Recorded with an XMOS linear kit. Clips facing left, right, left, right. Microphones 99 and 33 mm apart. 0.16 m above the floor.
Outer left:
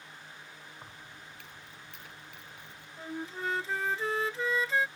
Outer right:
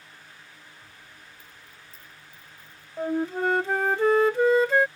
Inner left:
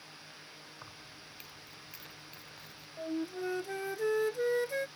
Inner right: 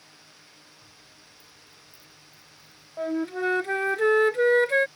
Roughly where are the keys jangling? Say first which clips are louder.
Outer left 2 dB, inner left 3 dB; left.